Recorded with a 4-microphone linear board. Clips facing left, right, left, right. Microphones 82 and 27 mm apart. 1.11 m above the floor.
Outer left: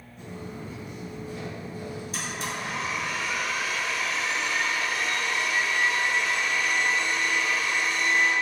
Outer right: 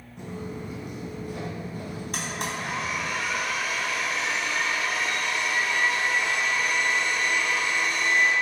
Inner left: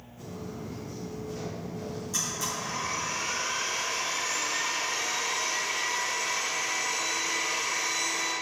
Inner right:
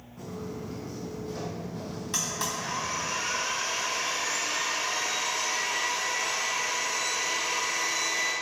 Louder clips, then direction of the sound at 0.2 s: Outer right 3 dB, inner right 2 dB; 70° right (ahead or behind).